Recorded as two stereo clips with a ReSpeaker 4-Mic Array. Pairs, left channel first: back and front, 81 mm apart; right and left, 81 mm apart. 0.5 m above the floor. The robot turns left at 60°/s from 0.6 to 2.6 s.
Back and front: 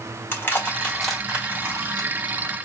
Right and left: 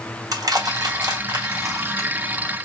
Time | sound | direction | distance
0.3 | crushing | 120° left | 1.5 m